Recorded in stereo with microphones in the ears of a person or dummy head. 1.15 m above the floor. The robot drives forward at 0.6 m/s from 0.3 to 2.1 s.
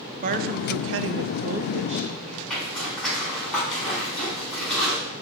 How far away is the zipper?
About 4 m.